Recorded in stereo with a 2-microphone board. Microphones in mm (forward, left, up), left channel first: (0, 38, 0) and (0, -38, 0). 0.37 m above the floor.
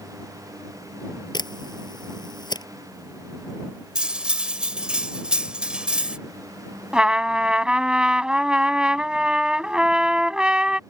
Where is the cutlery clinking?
15° right (ahead or behind).